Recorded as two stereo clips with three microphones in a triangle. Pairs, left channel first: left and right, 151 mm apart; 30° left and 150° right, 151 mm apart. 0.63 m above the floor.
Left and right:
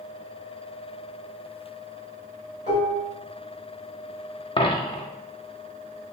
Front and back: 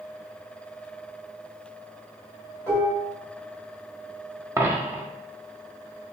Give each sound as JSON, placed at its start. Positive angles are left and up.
{"t": 2.7, "sound": "dishes clattering", "azimuth_deg": -50, "distance_m": 1.8}
{"t": 4.6, "sound": "a dropped coin", "azimuth_deg": 140, "distance_m": 0.6}